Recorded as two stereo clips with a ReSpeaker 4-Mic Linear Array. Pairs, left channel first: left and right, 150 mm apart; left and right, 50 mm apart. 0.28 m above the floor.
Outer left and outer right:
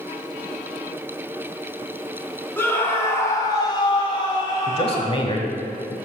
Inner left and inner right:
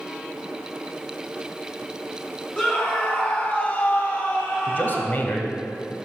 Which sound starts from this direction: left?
A man speaking, at 4.7 s.